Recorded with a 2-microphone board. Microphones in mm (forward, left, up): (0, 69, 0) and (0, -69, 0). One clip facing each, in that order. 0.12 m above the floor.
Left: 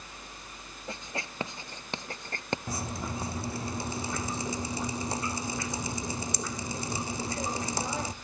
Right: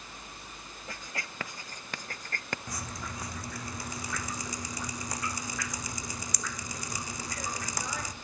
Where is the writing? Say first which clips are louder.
Left 4 dB; 25° left (ahead or behind), 0.7 m.